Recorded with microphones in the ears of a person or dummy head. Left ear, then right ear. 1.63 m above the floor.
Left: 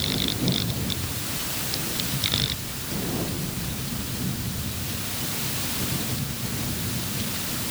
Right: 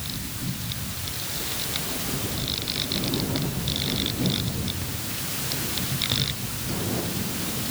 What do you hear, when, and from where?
Only background noise.